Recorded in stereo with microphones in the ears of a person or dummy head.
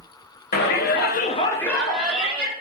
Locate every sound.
0.5 s a shout: 45° left (ahead or behind), 0.9 m; by 2.5 s 10° right (ahead or behind), 1.6 m